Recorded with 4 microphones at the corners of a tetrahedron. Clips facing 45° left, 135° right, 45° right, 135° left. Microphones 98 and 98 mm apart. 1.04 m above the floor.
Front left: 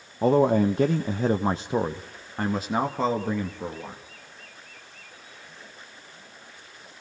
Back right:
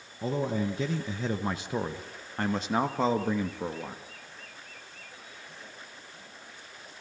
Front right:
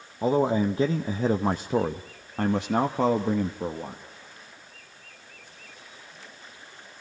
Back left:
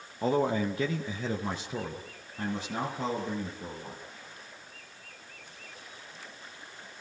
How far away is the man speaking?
About 1.0 m.